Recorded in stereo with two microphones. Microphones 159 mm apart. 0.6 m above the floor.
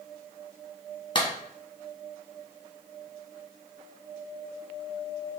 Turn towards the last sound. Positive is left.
turn(degrees=30)  # may be behind; listen again after turning